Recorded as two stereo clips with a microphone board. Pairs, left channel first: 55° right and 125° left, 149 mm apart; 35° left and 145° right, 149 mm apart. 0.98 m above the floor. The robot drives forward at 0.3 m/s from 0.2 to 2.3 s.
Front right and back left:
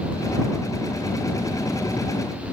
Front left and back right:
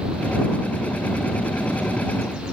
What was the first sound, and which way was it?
Only background noise.